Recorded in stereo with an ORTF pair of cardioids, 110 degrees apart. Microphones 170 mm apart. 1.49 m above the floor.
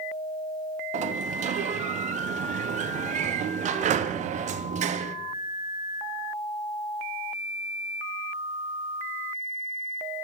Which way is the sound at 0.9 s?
45° right.